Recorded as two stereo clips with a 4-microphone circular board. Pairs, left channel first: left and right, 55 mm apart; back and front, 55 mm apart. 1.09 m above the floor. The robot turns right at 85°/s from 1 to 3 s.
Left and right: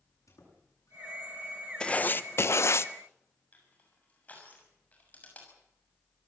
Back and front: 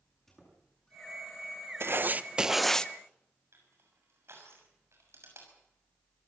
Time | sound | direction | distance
0.3 | a squeak | 100° left | 8.5 m
1.8 | writing | 20° left | 0.8 m
3.5 | crushing | 30° left | 6.5 m